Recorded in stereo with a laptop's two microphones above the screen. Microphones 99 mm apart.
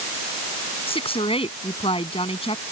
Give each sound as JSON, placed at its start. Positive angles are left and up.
{"t": 0.9, "sound": "a woman speaking", "side_deg": 70}